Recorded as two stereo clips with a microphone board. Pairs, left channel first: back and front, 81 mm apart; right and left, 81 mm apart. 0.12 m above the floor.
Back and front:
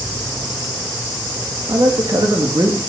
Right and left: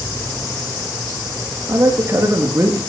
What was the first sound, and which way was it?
A man speaking, 35° left.